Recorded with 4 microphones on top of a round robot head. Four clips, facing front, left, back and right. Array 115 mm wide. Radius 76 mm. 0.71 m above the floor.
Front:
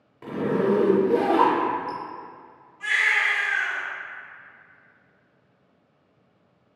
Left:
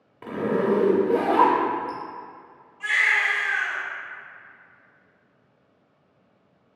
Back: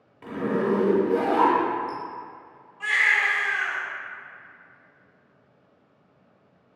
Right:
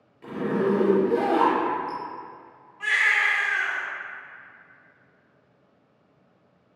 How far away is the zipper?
About 0.5 m.